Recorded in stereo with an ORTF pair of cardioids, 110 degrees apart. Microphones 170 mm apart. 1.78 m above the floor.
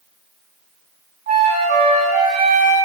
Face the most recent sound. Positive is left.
turn(degrees=-65)